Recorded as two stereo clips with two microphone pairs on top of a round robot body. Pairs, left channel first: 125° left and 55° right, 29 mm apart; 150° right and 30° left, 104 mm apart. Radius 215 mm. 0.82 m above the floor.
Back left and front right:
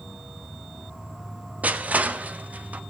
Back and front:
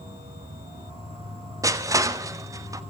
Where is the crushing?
25° right, 1.3 m.